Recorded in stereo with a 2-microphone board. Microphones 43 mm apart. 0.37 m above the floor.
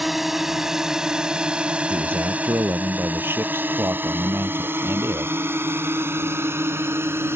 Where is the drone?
5° right (ahead or behind); by 7.4 s 75° right (ahead or behind).